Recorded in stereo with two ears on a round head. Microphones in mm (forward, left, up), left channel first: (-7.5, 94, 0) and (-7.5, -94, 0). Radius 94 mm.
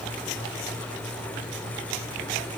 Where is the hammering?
I don't hear hammering.